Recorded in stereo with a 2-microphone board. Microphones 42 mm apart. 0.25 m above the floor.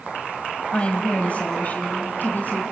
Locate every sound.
0.7 s a woman speaking: 30° left (ahead or behind), 1.3 m; by 2.6 s 45° left (ahead or behind), 2.5 m